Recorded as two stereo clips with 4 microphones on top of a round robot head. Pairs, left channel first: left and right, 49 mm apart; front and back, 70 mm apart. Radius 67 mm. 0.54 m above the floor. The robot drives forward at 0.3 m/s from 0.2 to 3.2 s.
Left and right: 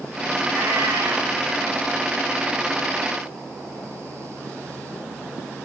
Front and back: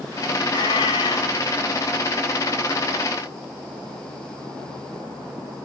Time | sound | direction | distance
0.5 | a cat meowing | 30° right | 1.5 m